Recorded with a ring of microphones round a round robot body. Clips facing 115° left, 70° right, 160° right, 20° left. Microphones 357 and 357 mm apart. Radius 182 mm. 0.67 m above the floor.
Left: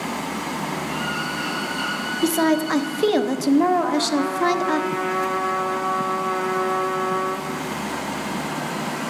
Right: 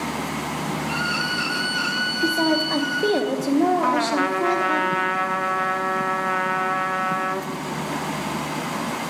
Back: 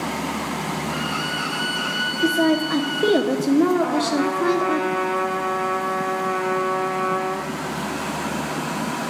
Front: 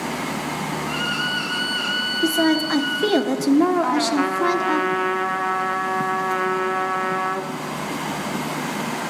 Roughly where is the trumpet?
Ahead right.